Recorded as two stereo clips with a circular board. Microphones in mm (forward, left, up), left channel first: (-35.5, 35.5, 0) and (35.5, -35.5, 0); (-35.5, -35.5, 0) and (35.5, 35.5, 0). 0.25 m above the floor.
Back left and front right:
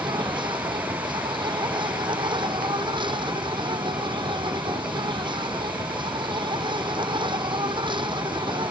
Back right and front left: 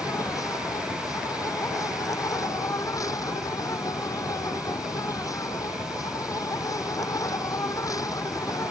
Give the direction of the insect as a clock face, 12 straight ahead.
3 o'clock.